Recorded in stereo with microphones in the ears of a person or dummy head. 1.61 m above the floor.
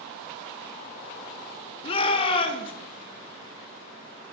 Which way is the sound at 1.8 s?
30° left (ahead or behind).